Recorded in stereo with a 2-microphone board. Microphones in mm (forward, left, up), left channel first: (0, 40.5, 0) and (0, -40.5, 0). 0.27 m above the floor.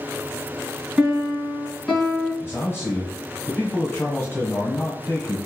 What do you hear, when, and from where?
1.0 s a piano: 5° left (ahead or behind), 2 m
2.4 s a man speaking: 30° left (ahead or behind), 1.3 m